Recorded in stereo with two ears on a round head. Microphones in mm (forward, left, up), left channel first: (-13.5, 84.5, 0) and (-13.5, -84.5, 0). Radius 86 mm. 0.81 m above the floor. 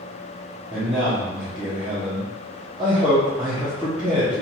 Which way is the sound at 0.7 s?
10° right (ahead or behind).